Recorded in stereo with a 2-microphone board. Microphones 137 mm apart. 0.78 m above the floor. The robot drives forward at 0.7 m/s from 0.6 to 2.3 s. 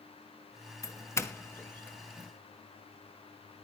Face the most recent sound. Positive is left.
turn(degrees=15)  # may be behind; listen again after turning